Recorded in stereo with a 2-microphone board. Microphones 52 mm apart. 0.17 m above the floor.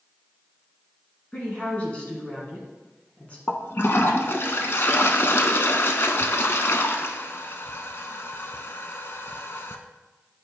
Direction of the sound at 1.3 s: 25° left (ahead or behind).